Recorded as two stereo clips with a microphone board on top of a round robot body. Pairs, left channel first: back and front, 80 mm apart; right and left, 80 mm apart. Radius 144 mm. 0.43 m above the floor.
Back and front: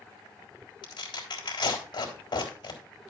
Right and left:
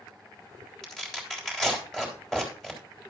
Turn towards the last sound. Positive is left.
turn(degrees=-175)